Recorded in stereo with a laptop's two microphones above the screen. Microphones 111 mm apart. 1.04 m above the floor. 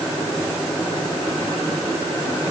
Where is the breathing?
I don't hear breathing.